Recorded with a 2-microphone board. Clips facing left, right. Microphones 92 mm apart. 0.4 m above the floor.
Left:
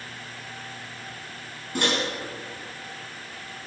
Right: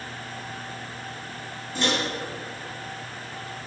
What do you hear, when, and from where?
1.8 s a microwave: 65° left (ahead or behind), 4 m